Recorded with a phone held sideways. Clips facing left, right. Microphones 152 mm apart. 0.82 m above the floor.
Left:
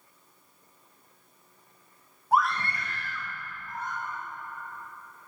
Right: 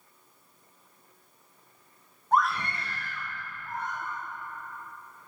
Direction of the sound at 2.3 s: 10° left (ahead or behind).